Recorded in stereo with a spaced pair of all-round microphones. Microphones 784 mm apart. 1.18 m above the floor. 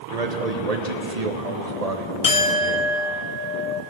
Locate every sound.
0.1 s a man speaking: 50° right (ahead or behind), 1.3 m
2.2 s a clink: 45° left (ahead or behind), 1.0 m